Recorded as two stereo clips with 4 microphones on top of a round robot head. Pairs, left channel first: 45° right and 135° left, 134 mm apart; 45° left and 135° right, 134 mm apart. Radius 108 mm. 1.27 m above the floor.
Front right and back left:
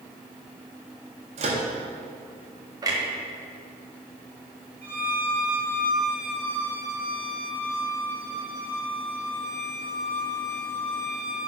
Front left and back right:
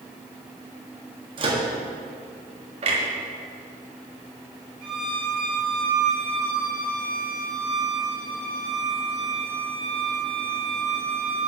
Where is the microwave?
175° left, 1.7 m.